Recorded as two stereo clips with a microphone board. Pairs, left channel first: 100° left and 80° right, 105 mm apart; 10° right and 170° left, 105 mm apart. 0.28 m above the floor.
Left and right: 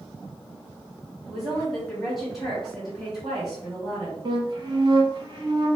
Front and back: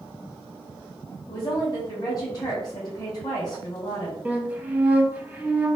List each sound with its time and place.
1.3 s a woman speaking: 10° left, 1.2 m
4.2 s a flute: 115° right, 0.5 m